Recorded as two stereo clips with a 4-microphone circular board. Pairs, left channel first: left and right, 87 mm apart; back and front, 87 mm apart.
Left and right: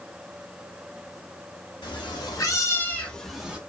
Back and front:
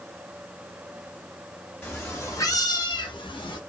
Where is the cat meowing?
115° left, 0.9 m; by 3.6 s 165° right, 0.7 m.